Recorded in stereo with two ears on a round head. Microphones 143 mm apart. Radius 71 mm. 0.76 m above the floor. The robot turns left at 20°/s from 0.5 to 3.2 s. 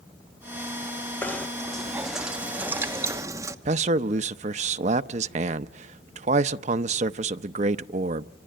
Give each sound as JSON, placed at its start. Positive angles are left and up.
{"t": 1.2, "sound": "knocking", "azimuth_deg": 15, "distance_m": 1.1}
{"t": 3.6, "sound": "a man speaking", "side_deg": -45, "distance_m": 0.6}